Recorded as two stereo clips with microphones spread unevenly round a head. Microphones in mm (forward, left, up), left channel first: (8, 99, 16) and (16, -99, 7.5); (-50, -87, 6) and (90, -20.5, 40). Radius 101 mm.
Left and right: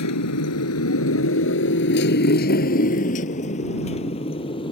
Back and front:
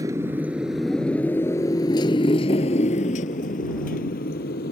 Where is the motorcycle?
100° left; by 4.7 s 160° left.